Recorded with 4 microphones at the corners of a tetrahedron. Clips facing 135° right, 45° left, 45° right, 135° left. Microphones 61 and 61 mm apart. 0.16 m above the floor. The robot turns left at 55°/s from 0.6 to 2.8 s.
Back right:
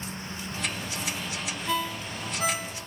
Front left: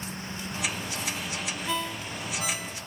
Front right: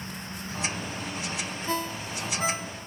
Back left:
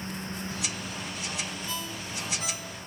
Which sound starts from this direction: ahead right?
A ringtone, at 1.7 s.